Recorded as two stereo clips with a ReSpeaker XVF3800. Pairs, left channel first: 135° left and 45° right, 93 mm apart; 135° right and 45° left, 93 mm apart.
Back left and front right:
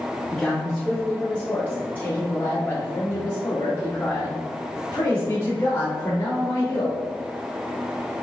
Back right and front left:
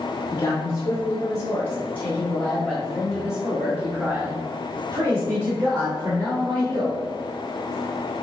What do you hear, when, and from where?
0.3 s a man speaking: 145° right, 1.7 m; by 7.0 s 80° left, 2.5 m